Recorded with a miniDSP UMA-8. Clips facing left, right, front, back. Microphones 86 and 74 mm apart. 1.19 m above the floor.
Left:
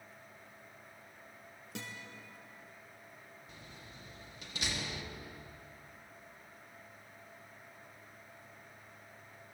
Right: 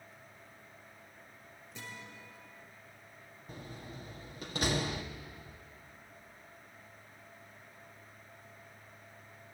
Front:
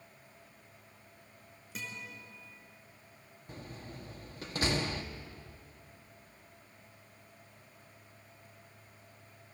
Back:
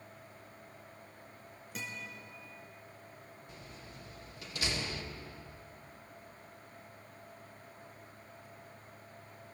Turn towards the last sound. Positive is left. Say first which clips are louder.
# right 11 dB, front 8 dB
turn(degrees=-45)